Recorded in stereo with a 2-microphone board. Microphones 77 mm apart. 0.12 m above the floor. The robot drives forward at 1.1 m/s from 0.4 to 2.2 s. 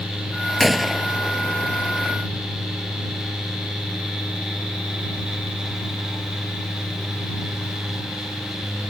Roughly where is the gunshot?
Centre.